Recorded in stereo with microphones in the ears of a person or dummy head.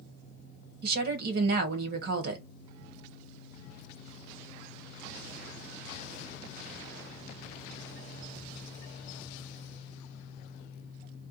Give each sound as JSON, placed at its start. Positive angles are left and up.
{"t": 0.8, "sound": "a woman speaking", "side_deg": -60, "distance_m": 1.2}